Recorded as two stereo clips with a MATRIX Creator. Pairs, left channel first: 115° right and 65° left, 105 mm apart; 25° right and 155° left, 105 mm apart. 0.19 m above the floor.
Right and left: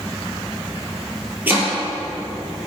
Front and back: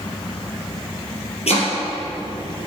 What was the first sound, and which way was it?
Chopping, 5° right.